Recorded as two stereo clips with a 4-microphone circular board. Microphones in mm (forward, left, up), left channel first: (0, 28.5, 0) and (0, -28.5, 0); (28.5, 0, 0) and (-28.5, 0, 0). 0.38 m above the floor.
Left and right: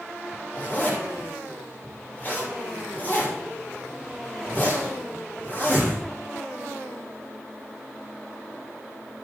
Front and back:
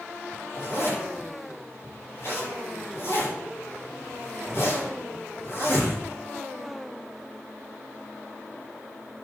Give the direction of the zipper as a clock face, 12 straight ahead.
11 o'clock.